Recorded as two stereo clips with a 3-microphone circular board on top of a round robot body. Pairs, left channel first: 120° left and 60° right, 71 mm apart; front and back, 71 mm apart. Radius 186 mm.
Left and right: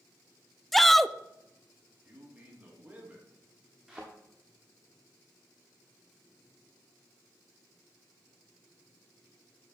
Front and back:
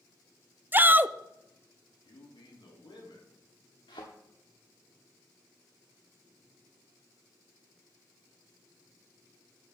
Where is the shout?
155° right, 0.7 m.